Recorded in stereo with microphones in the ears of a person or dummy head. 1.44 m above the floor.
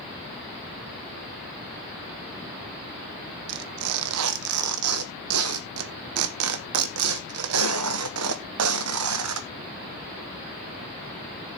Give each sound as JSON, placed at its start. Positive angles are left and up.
{"t": 3.5, "sound": "tearing paper", "side_deg": -85, "distance_m": 0.8}